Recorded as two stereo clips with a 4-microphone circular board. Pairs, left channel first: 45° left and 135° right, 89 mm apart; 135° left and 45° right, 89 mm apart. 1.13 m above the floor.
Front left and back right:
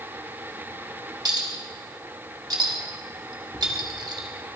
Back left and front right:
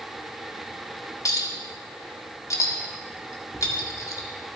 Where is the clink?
175° right, 1.8 m.